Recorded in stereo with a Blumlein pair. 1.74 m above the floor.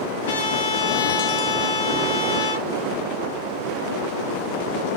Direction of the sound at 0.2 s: 55° left.